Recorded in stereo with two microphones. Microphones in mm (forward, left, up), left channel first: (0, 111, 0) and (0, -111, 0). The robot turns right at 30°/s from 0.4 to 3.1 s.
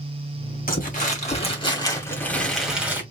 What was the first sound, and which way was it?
Crumpling, 125° left.